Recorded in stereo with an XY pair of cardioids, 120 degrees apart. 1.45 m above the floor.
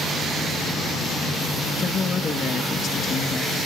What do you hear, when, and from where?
1.8 s a man speaking: 40° left, 1.7 m